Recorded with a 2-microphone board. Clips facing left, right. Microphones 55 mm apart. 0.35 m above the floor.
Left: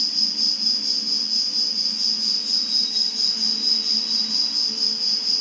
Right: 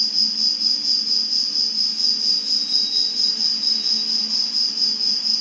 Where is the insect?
10° left (ahead or behind), 1.7 m.